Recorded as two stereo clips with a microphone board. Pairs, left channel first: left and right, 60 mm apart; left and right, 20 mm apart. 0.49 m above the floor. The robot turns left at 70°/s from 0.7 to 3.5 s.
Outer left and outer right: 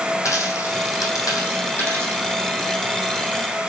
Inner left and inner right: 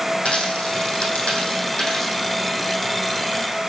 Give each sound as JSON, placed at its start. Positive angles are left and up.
{"t": 0.2, "sound": "a dropped coin", "side_deg": 60, "distance_m": 2.5}